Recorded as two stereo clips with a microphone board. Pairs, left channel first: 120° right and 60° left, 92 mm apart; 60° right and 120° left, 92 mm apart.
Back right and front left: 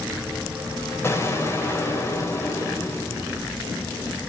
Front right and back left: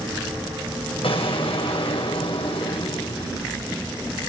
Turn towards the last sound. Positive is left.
turn(degrees=-60)